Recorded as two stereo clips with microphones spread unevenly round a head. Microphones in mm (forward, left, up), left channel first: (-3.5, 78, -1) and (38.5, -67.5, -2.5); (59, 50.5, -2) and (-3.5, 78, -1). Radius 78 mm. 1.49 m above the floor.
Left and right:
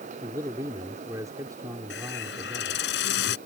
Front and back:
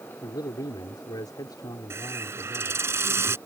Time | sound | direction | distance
0.2 | a man speaking | 5° right | ?
1.9 | a hiss | 110° left | ?